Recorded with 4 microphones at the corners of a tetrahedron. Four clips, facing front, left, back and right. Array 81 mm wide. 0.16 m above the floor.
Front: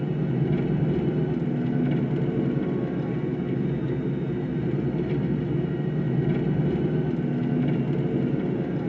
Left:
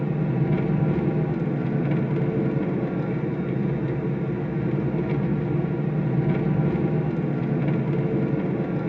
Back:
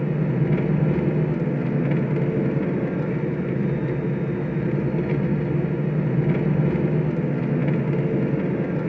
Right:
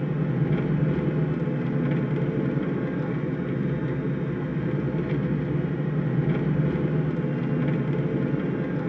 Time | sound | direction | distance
0.0 | an engine running | 165° left | 0.8 m